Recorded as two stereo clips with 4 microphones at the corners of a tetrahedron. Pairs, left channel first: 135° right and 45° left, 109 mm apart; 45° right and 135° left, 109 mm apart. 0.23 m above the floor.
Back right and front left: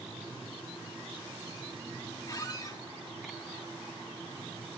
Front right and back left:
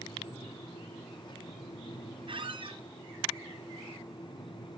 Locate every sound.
2.3 s a squeak: 165° left, 0.6 m